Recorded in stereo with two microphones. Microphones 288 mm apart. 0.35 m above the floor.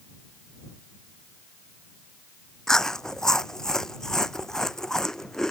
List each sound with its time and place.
2.7 s chewing: centre (ahead or behind)